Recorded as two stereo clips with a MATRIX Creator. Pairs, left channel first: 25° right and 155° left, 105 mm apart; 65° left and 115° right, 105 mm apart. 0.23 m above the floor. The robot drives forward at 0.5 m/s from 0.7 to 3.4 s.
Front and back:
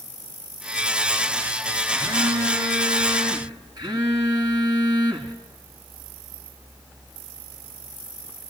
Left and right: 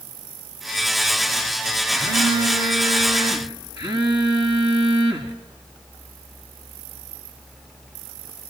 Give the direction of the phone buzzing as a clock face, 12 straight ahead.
5 o'clock.